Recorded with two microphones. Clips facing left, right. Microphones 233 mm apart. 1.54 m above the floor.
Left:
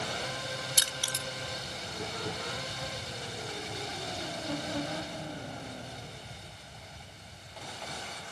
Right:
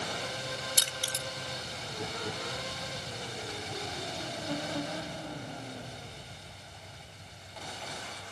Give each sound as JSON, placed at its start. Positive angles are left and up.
{"t": 0.8, "sound": "crushing", "side_deg": -45, "distance_m": 2.0}